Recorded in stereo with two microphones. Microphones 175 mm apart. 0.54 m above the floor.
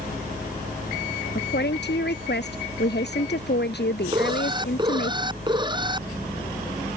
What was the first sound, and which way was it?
A woman speaking, 80° left.